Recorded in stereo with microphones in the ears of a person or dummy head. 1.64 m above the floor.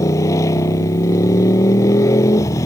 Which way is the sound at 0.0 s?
20° left (ahead or behind).